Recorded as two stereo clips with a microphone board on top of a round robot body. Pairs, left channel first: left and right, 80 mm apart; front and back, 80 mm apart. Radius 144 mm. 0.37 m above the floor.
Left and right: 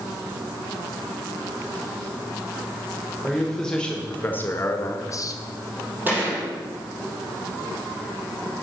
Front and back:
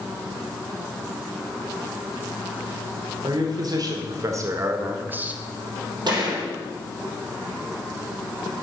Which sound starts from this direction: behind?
A man speaking, at 3.2 s.